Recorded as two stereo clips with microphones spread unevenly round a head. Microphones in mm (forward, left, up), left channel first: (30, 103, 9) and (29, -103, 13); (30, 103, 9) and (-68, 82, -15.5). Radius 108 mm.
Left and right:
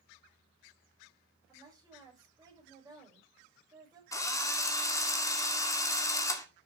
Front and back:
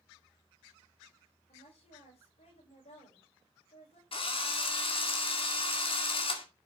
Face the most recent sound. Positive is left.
turn(degrees=15)